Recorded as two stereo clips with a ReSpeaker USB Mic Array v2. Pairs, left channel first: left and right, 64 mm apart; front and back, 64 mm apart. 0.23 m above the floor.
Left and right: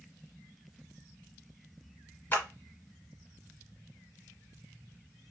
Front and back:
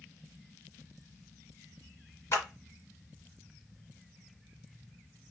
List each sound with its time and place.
2.3 s a clap: 40° left, 1.7 m